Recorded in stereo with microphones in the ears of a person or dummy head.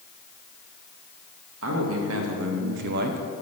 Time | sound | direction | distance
1.6 | a man speaking | 85° right | 2 m